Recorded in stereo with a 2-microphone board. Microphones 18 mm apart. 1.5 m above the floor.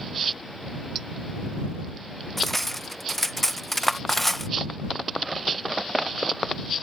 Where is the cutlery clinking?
10° left (ahead or behind).